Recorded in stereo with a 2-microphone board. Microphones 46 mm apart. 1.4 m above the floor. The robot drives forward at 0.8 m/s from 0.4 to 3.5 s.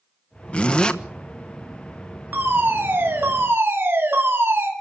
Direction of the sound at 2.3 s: 50° right (ahead or behind).